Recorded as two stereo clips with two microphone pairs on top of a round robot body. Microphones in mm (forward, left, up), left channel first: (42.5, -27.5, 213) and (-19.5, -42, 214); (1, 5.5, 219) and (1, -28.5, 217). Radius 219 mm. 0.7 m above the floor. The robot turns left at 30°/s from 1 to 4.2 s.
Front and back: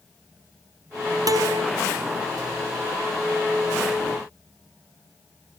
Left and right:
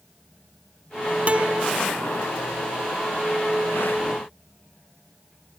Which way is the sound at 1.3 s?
140° right.